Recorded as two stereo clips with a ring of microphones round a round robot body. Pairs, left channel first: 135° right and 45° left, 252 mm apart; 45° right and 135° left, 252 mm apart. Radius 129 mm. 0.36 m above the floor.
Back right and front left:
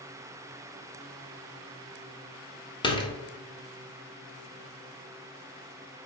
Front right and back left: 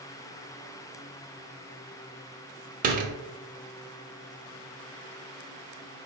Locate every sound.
2.8 s a door slam: 165° left, 0.6 m